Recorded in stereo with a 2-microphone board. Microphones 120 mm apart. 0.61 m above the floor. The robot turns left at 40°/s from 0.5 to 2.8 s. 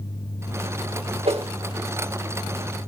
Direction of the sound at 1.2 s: 55° right (ahead or behind).